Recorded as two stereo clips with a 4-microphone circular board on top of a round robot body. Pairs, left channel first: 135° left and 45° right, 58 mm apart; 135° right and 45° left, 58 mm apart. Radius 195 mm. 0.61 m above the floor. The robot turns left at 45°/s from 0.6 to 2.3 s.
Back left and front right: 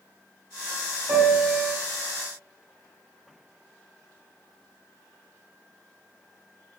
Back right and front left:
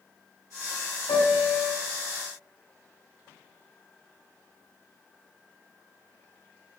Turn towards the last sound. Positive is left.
turn(degrees=-150)